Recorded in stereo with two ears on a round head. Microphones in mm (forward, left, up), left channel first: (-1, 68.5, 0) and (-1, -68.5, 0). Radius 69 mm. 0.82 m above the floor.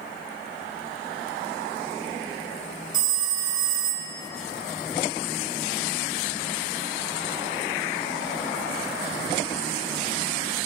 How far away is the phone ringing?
About 1.4 m.